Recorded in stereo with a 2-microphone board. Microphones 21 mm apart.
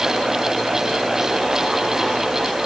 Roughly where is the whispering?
I don't hear whispering.